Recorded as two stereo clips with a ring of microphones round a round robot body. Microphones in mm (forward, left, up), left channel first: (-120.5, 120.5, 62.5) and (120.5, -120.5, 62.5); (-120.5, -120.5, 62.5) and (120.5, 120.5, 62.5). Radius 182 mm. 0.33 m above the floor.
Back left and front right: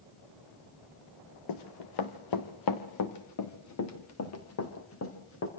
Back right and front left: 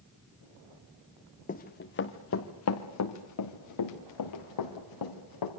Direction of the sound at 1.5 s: 155° left.